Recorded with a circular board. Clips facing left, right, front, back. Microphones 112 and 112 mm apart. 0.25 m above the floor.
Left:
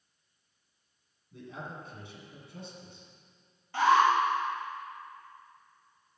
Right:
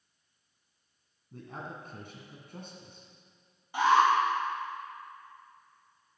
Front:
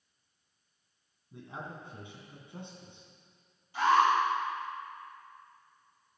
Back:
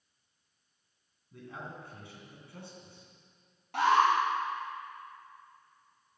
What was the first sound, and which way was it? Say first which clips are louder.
A man speaking: even, front 1 dB; 65° right.